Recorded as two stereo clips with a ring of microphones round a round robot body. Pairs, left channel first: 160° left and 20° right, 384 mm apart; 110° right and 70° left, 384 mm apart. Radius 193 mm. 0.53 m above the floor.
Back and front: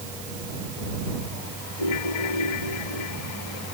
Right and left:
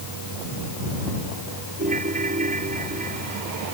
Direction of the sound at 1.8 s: 140° left.